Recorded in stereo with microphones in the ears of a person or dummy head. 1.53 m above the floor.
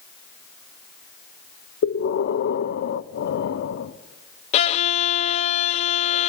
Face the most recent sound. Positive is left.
turn(degrees=35)  # may be behind; listen again after turning